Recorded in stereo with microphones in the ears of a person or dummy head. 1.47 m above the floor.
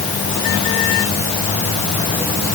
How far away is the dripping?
No dripping in this recording.